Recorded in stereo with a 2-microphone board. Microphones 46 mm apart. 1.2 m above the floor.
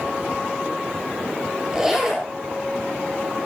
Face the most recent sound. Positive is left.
turn(degrees=-10)  # may be behind; listen again after turning